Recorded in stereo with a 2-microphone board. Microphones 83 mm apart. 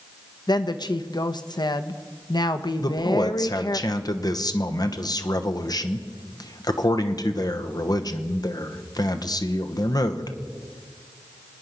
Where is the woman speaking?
60° left (ahead or behind), 0.9 m.